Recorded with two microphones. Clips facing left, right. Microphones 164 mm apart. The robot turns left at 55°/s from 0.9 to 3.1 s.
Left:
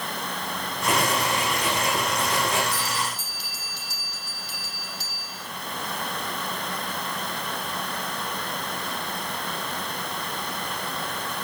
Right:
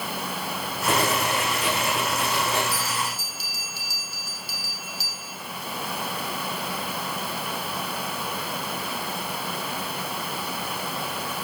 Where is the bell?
15° left (ahead or behind), 5 m; by 5.4 s 5° right (ahead or behind), 5 m.